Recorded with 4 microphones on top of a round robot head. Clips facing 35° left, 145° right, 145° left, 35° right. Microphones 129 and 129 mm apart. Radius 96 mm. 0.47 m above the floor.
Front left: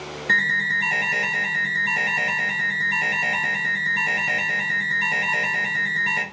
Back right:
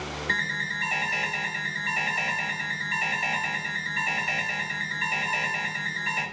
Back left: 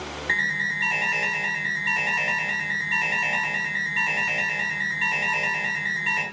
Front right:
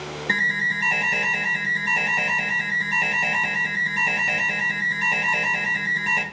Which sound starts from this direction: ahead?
An alarm, at 0.3 s.